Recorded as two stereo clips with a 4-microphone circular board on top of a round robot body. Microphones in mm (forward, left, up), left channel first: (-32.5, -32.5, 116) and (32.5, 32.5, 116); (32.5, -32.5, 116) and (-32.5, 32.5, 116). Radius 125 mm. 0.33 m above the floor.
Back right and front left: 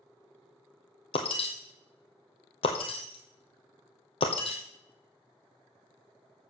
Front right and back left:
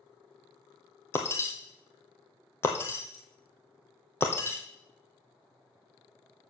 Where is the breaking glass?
110° right, 1.4 m.